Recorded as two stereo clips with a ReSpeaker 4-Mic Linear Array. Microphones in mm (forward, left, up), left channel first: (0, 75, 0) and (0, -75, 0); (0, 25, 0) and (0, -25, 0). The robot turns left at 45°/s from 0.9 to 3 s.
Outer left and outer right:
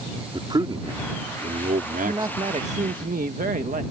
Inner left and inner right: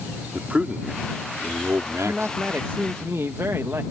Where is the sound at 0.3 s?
30° right; by 3.0 s 125° right.